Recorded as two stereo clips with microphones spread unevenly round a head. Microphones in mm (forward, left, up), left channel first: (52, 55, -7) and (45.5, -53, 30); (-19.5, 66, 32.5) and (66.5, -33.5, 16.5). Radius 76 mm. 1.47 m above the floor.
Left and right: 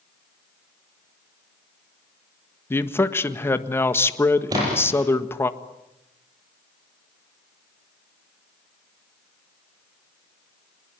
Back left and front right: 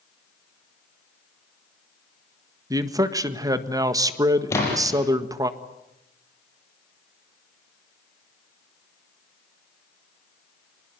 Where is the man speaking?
15° left, 1.6 m.